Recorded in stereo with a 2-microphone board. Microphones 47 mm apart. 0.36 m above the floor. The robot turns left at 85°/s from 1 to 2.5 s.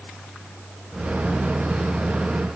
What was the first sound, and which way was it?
Only background noise.